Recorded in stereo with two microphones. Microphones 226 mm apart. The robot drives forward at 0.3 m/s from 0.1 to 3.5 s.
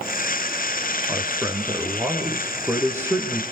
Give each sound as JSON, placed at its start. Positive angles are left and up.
{"t": 1.1, "sound": "a man speaking", "side_deg": -10, "distance_m": 4.0}